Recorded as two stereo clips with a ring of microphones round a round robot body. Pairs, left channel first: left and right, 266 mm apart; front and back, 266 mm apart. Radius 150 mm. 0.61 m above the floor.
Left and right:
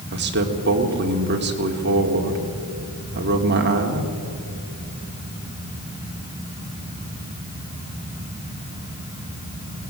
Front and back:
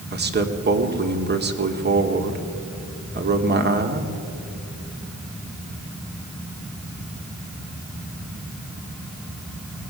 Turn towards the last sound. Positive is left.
turn(degrees=-135)